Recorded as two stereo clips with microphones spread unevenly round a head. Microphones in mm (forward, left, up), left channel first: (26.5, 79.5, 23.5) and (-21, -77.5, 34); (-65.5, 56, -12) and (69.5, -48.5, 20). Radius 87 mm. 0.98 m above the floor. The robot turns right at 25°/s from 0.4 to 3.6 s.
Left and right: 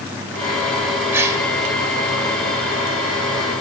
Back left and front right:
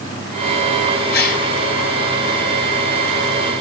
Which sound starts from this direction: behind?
A gasp, at 1.1 s.